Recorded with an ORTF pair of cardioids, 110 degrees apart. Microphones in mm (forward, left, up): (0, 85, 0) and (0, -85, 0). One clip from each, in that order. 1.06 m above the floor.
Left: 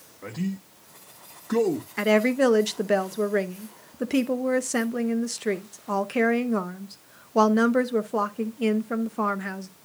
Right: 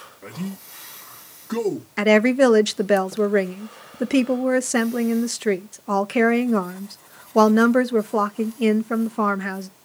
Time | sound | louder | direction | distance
0.2 | a man speaking | left 1 dB | 5° left | 1.2 m
2.0 | a woman speaking | right 5 dB | 20° right | 0.6 m